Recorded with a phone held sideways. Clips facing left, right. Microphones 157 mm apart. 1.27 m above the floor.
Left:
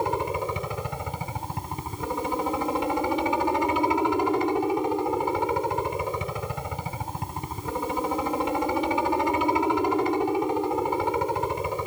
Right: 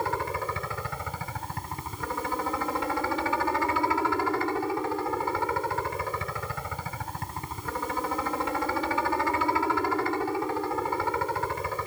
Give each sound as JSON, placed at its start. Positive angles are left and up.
{"t": 0.0, "sound": "a helicopter", "side_deg": 20}